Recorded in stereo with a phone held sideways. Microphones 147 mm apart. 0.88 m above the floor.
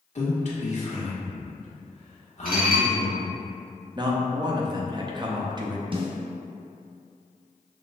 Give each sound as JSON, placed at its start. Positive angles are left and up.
{"t": 0.1, "sound": "a man speaking", "side_deg": 50, "distance_m": 1.5}
{"t": 2.5, "sound": "dishes clattering", "side_deg": -80, "distance_m": 1.2}
{"t": 4.0, "sound": "a man speaking", "side_deg": -30, "distance_m": 0.8}
{"t": 5.9, "sound": "a snare drum", "side_deg": -35, "distance_m": 0.7}